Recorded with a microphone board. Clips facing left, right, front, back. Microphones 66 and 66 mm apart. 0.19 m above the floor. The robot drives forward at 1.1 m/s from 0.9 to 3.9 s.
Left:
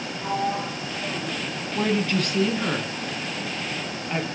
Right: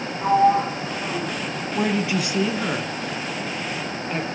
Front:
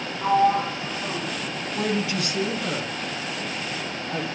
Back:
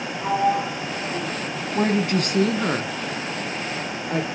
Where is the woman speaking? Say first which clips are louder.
Right 1 dB, back 5 dB; 155° right, 1.1 m; by 4.3 s 175° right, 3 m.